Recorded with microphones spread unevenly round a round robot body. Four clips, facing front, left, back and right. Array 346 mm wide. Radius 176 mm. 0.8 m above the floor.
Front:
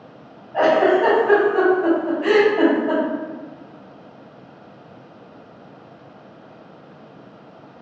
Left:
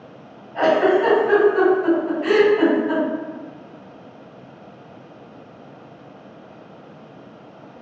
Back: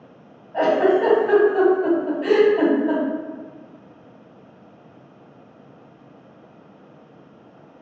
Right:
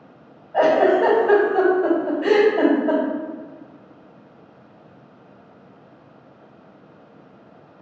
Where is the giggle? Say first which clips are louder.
Right 1 dB, front 2 dB; 120° right, 1.9 m.